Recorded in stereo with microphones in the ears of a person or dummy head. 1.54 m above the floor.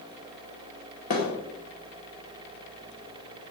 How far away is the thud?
About 2 m.